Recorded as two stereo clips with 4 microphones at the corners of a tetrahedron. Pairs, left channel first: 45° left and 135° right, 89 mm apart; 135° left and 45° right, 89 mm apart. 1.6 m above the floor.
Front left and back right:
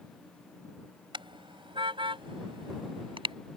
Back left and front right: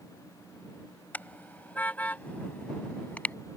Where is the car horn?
155° right; by 3.3 s 150° right.